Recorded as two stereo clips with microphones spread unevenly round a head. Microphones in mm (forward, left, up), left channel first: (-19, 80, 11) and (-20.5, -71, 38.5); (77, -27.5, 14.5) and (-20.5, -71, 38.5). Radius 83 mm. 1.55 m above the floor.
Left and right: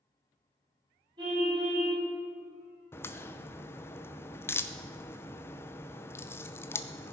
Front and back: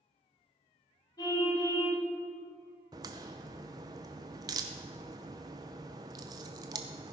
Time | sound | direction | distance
1.2 | a car horn | 30° right | 6.5 m
2.9 | a crack | 170° left | 0.6 m